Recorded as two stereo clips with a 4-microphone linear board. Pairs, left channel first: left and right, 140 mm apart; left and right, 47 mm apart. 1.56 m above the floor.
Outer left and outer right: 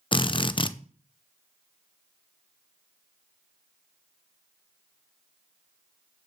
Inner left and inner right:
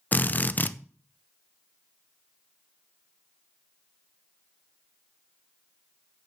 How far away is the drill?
About 0.5 m.